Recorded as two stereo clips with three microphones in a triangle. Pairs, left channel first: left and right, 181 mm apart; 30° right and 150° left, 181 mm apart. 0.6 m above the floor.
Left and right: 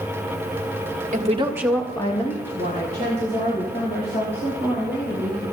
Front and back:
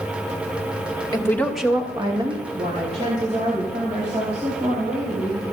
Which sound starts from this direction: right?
A woman speaking, at 1.1 s.